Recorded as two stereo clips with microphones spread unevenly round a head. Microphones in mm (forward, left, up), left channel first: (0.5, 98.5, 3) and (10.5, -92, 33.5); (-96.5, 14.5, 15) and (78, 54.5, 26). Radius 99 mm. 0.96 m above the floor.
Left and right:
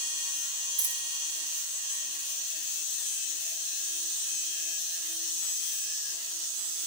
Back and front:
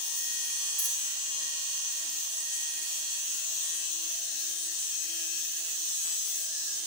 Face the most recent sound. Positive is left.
turn(degrees=-55)